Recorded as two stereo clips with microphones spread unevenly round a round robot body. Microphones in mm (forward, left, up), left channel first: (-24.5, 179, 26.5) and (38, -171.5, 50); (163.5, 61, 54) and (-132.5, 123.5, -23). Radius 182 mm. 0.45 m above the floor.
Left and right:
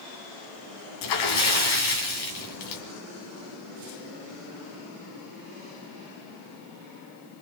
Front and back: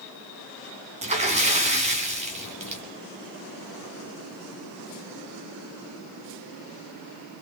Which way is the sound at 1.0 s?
105° left.